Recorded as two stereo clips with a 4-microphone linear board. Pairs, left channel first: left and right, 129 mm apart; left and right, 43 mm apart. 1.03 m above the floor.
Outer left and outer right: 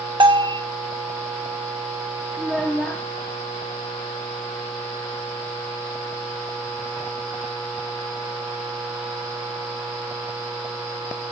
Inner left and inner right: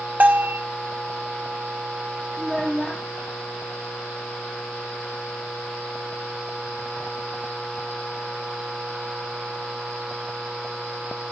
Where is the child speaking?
5° left (ahead or behind), 0.9 m.